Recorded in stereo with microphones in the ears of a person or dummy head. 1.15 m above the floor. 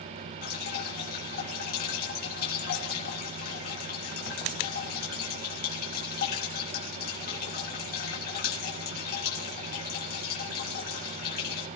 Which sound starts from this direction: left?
Dripping, at 0.4 s.